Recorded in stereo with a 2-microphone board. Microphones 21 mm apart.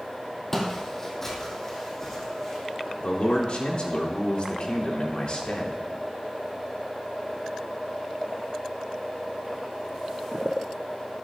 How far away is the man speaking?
About 2.5 m.